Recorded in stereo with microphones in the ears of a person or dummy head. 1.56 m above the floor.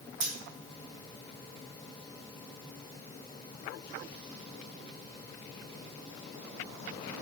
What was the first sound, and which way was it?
Scissors, 65° right (ahead or behind).